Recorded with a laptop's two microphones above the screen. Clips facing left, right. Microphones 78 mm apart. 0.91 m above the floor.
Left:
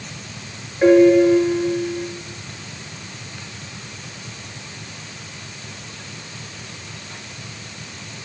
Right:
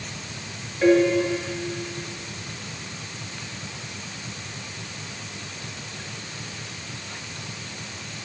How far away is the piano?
About 2.5 m.